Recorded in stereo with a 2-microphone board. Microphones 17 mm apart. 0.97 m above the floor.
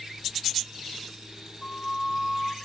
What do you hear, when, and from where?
1.6 s a flute: 25° left (ahead or behind), 0.9 m